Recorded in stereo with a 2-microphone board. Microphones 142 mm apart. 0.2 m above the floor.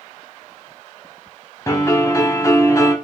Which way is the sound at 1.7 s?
20° left (ahead or behind).